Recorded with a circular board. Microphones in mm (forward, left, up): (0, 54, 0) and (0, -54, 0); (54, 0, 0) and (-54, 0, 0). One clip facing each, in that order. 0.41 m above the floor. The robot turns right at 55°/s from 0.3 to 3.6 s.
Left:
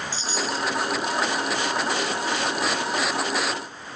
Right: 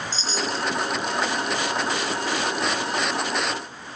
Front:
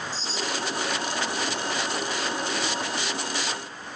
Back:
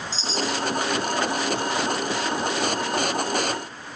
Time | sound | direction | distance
0.1 | a chime | 165° left | 5 m